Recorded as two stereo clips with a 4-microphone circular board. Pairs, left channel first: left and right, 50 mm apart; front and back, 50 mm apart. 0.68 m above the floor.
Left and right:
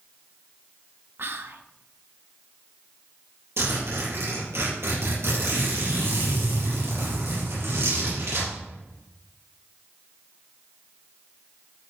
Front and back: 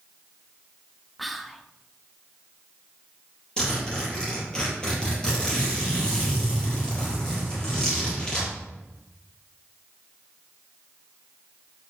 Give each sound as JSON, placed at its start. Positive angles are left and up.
{"t": 1.2, "sound": "whispering", "azimuth_deg": -90, "distance_m": 0.8}
{"t": 3.6, "sound": "a zipper", "azimuth_deg": -70, "distance_m": 5.5}